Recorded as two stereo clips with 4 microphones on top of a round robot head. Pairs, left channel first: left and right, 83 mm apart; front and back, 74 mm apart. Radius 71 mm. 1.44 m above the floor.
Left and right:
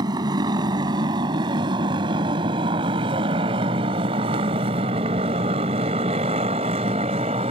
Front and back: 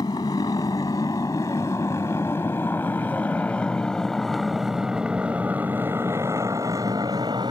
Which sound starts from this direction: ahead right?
A motorcycle, at 0.0 s.